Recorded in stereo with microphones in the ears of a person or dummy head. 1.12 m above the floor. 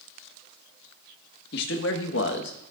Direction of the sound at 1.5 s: 65° left (ahead or behind).